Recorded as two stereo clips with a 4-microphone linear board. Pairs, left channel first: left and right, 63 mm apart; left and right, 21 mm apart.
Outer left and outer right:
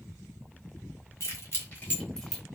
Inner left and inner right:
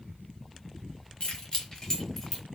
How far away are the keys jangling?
About 1.2 m.